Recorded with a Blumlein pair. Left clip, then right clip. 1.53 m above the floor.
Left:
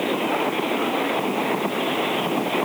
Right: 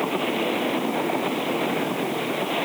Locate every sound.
Only background noise.